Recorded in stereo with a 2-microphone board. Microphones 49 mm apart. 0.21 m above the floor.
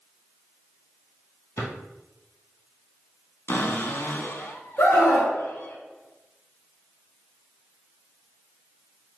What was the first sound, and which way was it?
A drawer, 60° left (ahead or behind).